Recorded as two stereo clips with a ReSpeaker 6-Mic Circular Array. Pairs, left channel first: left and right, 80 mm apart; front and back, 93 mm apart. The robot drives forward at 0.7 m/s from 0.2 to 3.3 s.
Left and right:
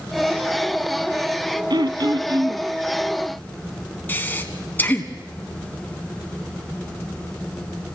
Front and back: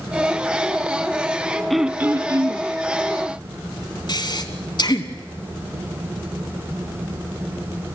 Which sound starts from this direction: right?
Throat clearing, at 1.7 s.